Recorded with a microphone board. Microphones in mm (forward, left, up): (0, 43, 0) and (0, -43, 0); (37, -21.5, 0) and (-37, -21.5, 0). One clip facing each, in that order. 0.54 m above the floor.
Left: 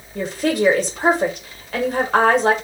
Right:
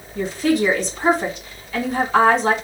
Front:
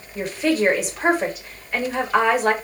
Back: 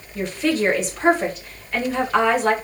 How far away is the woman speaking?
About 1.3 m.